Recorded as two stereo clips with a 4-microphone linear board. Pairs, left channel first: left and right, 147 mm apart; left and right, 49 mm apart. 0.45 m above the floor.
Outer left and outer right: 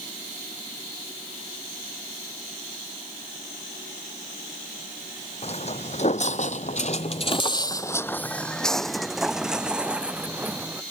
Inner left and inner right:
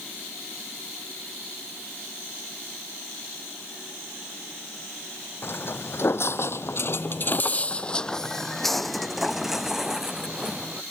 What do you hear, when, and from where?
5.4 s footsteps: 45° left (ahead or behind); by 10.8 s 10° right (ahead or behind)